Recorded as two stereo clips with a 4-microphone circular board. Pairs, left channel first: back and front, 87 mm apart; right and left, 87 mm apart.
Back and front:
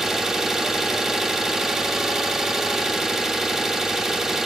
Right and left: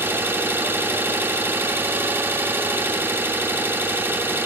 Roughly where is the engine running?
Left.